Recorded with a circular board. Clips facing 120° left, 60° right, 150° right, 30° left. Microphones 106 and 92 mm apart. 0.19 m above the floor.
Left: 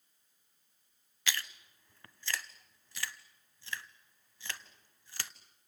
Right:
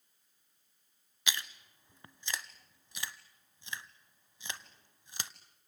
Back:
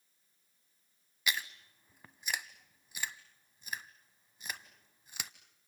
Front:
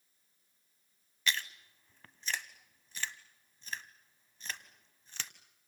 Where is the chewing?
90° right, 0.7 m.